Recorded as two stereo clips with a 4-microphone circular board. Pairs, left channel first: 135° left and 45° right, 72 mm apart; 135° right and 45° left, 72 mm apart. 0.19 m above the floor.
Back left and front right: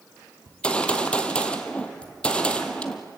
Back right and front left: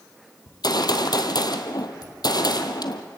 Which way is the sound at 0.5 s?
150° right.